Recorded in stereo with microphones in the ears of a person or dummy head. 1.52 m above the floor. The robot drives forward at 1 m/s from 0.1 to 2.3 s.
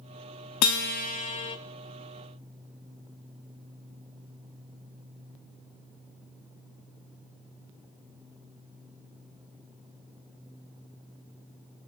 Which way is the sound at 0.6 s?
75° left (ahead or behind).